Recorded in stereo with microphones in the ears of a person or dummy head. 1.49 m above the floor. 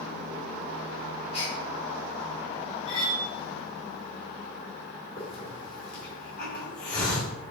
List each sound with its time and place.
1.3 s a gasp: 40° left (ahead or behind), 1.5 m
2.9 s cutlery clinking: 30° left (ahead or behind), 0.8 m
5.2 s a hiss: 45° left (ahead or behind), 1.7 m